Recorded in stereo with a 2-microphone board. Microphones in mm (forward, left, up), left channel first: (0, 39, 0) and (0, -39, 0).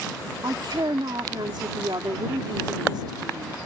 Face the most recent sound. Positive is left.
turn(degrees=-70)  # may be behind; listen again after turning